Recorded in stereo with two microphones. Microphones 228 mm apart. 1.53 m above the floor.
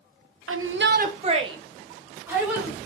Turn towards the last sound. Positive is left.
turn(degrees=-5)  # may be behind; listen again after turning